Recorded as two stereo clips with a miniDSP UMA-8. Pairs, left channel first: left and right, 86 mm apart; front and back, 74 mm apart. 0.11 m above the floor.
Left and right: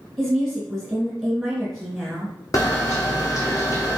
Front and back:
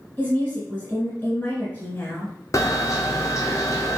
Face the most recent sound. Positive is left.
turn(degrees=45)